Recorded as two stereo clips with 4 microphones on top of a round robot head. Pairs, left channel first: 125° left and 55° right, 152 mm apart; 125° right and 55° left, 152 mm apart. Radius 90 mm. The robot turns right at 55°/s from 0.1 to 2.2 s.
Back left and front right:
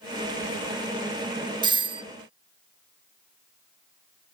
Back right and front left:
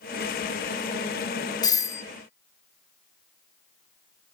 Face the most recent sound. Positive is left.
turn(degrees=-50)